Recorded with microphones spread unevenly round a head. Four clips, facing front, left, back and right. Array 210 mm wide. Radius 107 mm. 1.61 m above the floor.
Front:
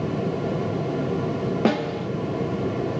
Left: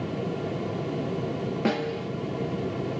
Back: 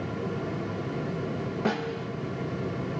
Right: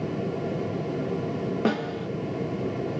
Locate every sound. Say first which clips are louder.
1.6 s a snare drum: left 1 dB, front 6 dB; straight ahead, 0.8 m